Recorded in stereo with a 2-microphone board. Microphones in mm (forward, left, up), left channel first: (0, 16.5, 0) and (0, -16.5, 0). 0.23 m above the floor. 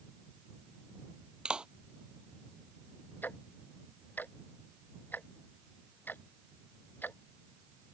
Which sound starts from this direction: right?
A clap, at 1.4 s.